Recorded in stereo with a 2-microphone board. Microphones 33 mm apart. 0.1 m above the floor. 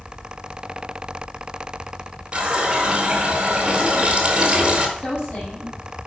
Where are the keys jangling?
I don't hear keys jangling.